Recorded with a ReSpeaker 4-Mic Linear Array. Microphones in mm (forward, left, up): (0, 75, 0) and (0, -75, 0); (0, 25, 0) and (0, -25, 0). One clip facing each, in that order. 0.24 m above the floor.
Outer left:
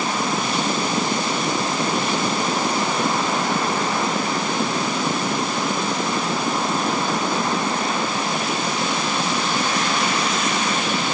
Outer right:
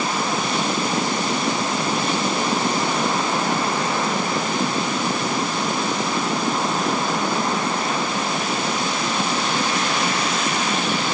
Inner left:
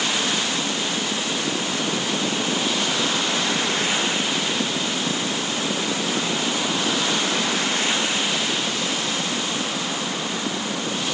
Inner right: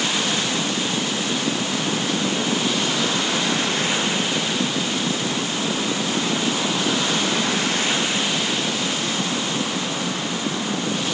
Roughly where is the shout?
No shout in this recording.